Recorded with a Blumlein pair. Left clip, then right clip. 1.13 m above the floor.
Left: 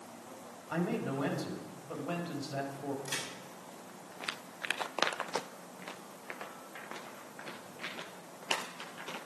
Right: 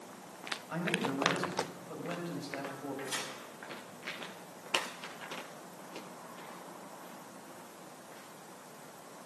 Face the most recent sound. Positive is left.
turn(degrees=65)